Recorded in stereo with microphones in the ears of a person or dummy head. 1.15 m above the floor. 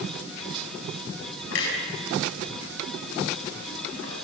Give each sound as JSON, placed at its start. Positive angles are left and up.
{"t": 1.5, "sound": "a clunk", "side_deg": 75, "distance_m": 7.5}